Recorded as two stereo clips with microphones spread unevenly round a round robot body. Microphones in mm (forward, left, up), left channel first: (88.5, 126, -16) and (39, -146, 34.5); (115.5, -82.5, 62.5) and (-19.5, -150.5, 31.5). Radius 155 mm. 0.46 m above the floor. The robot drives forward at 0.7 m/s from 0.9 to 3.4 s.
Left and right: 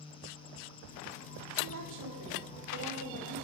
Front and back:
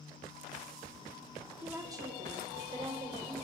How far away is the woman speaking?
About 1.5 m.